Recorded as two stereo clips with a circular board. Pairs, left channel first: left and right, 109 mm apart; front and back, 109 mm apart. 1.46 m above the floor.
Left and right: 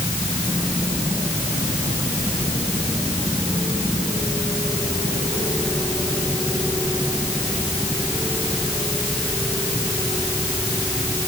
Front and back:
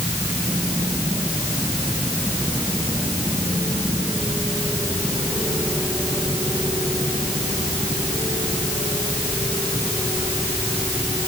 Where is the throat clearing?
No throat clearing in this recording.